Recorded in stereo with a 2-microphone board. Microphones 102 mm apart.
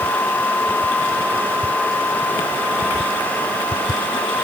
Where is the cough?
I don't hear a cough.